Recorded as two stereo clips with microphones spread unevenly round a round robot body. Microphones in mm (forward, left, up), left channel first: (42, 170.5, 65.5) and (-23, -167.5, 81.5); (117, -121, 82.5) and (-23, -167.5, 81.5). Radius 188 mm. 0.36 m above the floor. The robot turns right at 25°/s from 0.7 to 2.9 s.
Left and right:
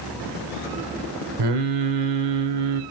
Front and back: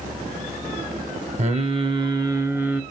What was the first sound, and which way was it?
Singing, 115° right.